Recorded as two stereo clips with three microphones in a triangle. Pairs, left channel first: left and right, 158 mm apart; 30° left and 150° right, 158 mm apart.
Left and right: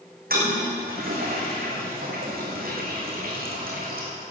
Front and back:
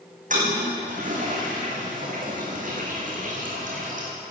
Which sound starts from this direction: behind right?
A toilet flushing, at 0.3 s.